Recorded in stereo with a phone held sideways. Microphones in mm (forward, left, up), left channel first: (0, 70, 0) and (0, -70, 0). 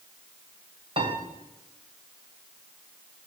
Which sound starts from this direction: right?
A piano, at 1.0 s.